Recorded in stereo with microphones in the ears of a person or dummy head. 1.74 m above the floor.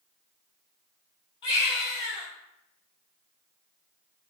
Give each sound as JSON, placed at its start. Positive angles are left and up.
{"t": 1.4, "sound": "a baby crying", "side_deg": 25, "distance_m": 1.4}